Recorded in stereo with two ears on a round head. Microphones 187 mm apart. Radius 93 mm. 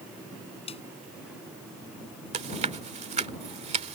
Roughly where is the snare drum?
Left.